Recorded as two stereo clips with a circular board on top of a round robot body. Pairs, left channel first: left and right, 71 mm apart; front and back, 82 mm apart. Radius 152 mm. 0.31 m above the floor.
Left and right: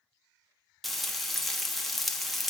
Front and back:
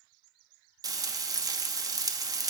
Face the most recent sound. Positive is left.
turn(degrees=180)